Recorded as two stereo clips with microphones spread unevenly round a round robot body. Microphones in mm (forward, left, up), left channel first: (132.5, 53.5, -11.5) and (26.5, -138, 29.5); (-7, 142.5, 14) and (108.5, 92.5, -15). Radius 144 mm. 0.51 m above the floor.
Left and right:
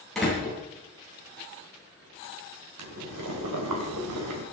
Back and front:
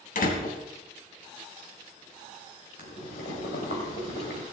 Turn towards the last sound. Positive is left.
turn(degrees=-150)